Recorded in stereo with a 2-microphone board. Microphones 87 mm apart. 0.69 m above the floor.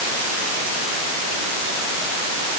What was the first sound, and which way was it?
Only background noise.